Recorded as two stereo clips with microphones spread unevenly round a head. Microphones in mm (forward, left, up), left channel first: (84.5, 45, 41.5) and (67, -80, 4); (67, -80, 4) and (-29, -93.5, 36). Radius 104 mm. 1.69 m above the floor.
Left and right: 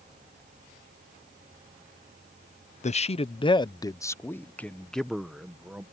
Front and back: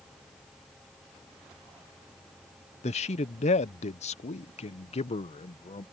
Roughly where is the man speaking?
Ahead left.